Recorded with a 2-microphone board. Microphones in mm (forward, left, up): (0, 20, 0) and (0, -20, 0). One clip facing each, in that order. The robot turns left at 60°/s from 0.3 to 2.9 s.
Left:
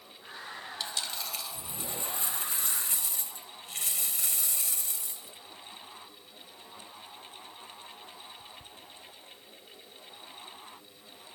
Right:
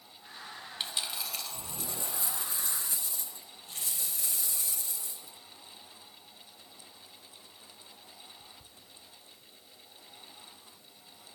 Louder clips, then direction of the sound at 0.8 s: Right 1 dB; 30° right (ahead or behind).